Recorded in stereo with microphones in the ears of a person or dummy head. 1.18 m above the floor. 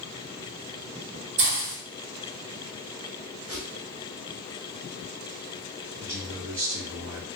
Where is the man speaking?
65° right (ahead or behind), 1.6 m.